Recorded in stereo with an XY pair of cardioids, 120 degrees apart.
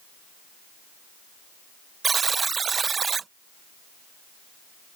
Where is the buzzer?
30° right.